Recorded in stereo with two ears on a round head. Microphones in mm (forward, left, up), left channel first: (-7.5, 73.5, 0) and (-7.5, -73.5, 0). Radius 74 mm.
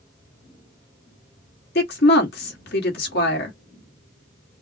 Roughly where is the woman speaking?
Left.